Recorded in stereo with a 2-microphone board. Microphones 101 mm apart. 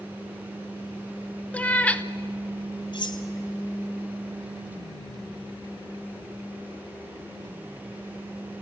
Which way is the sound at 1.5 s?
15° left (ahead or behind).